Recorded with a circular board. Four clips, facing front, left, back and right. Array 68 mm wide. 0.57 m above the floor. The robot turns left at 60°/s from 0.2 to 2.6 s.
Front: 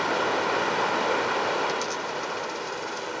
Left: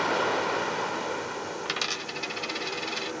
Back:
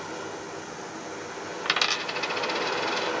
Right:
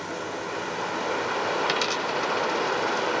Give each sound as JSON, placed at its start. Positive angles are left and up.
{"t": 0.0, "sound": "running water", "azimuth_deg": 40, "distance_m": 0.9}
{"t": 1.6, "sound": "a dropped coin", "azimuth_deg": -165, "distance_m": 1.1}